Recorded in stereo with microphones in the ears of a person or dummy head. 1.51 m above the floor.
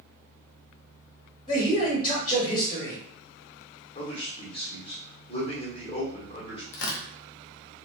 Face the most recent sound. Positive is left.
turn(degrees=80)